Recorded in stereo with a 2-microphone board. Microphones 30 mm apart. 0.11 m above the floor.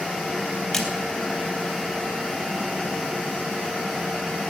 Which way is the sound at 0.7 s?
5° left (ahead or behind).